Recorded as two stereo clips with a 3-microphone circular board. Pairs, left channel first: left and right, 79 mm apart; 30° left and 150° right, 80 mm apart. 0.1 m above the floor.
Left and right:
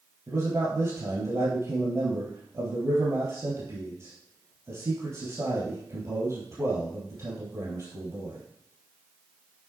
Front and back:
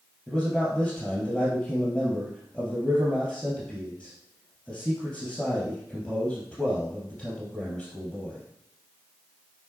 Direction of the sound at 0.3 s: 60° right.